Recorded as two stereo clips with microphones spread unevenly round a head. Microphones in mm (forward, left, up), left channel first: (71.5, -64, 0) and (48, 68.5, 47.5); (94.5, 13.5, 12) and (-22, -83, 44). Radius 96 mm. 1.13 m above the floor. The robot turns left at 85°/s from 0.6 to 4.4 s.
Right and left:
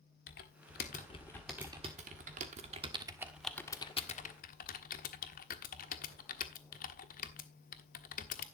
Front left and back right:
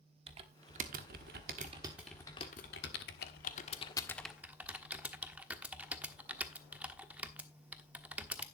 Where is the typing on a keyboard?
100° right, 1.3 m; by 8.4 s 65° right, 1.3 m.